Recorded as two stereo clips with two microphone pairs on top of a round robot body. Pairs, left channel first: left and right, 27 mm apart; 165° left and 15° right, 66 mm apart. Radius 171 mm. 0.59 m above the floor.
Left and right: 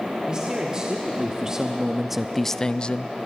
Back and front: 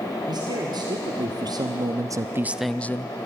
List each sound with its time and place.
0.3 s a man speaking: 25° right, 2.5 m; by 3.1 s 130° left, 0.9 m